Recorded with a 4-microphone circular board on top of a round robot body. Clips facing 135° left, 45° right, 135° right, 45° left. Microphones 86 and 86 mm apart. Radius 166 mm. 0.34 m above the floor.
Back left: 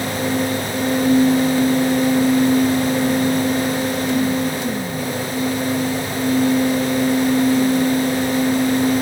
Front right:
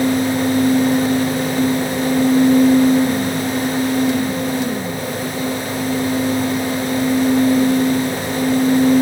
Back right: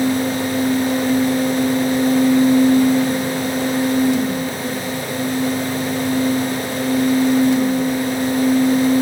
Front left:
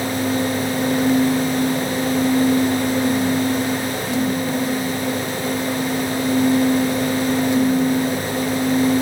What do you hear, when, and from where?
Only background noise.